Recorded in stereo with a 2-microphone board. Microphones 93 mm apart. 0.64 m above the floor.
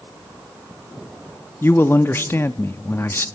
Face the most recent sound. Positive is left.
turn(degrees=25)  # may be behind; listen again after turning